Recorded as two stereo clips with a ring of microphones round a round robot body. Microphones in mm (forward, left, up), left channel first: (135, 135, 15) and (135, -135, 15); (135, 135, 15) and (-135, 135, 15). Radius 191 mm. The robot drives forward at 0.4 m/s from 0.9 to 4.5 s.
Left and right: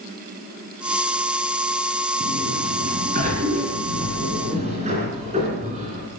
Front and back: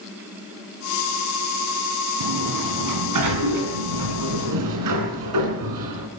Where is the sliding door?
155° right, 2 m; by 6.1 s 165° right, 3 m.